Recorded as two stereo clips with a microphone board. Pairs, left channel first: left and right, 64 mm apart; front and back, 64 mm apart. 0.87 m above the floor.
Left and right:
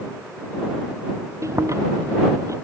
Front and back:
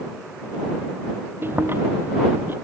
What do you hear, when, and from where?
1.4 s chewing: 125° right